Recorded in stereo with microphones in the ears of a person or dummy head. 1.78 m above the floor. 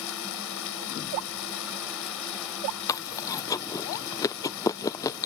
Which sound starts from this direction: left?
Running water, at 0.0 s.